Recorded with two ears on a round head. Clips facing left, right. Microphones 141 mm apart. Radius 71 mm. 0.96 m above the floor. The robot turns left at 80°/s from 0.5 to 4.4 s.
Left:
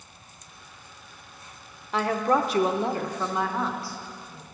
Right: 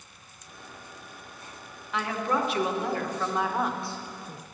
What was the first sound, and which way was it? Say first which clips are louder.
A woman speaking: left 5 dB; 120° left.